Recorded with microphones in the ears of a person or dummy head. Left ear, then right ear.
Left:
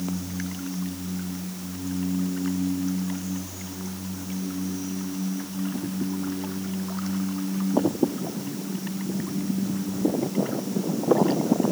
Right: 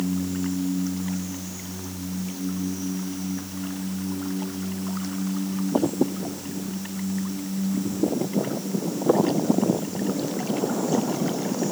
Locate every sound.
Only background noise.